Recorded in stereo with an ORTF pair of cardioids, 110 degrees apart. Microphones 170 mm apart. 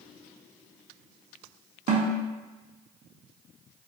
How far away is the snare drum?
About 0.8 m.